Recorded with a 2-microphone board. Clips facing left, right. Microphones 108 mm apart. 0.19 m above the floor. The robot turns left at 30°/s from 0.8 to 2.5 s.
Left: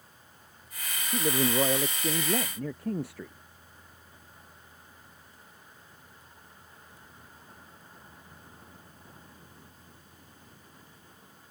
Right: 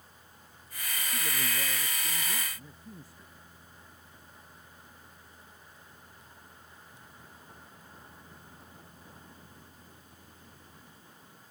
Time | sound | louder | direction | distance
1.1 | a man speaking | left 12 dB | 130° left | ?